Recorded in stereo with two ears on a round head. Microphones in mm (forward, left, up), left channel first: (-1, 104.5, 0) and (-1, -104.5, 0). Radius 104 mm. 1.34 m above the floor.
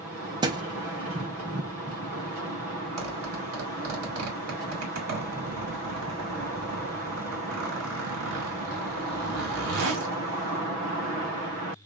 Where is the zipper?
70° right (ahead or behind), 2.5 m.